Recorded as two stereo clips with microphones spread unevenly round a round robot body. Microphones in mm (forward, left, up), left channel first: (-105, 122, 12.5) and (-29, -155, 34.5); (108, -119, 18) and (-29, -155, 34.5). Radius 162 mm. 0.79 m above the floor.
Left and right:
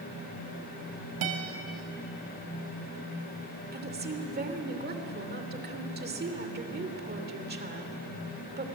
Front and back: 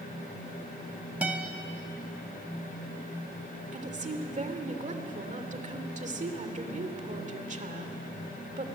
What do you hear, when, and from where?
1.2 s a guitar: 85° right, 2.5 m
3.7 s a woman speaking: 130° right, 3 m